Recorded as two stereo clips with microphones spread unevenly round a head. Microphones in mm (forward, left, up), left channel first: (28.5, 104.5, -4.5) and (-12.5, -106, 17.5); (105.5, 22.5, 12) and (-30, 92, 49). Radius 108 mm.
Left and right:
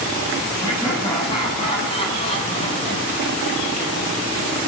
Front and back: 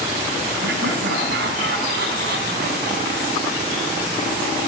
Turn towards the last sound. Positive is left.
turn(degrees=135)